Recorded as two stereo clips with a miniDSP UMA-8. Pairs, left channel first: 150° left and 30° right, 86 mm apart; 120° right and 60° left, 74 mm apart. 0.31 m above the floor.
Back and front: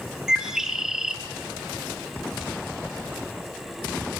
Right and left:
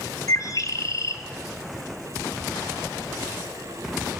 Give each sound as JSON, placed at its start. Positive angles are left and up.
{"t": 0.3, "sound": "a bird", "azimuth_deg": -110, "distance_m": 1.3}